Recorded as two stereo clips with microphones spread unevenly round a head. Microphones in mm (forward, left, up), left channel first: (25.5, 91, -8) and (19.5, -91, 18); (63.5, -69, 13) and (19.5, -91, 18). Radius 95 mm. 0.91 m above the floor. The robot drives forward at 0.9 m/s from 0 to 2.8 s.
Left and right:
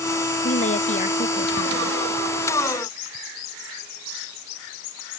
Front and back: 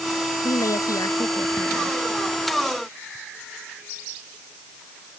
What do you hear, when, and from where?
0.4 s a woman speaking: 35° left; by 2.0 s 40° left